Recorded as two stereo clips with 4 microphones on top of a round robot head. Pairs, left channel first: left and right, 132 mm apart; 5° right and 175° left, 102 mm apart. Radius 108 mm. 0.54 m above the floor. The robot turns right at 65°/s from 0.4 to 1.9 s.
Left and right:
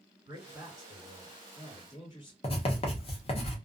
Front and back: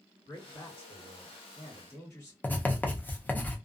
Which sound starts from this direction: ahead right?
A man speaking, at 0.3 s.